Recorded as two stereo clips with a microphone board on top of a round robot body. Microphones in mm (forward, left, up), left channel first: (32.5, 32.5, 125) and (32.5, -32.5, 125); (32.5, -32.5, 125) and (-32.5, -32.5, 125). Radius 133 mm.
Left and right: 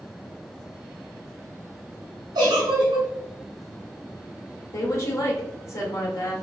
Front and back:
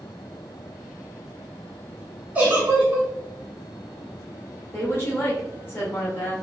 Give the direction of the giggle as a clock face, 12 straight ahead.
4 o'clock.